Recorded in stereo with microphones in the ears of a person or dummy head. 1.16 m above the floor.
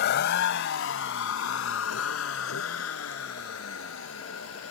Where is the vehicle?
55° left (ahead or behind); by 4.7 s 85° left.